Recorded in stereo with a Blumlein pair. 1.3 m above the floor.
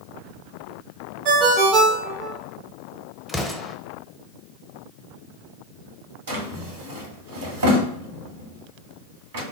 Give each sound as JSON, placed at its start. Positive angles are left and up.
{"t": 1.2, "sound": "a ringtone", "azimuth_deg": -40, "distance_m": 0.9}
{"t": 3.3, "sound": "an explosion", "azimuth_deg": 5, "distance_m": 0.7}
{"t": 6.3, "sound": "a drawer", "azimuth_deg": -60, "distance_m": 1.2}